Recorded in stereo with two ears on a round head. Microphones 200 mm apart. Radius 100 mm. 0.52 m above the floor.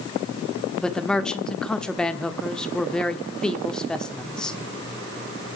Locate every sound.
0.8 s a man speaking: 5° left (ahead or behind), 1.1 m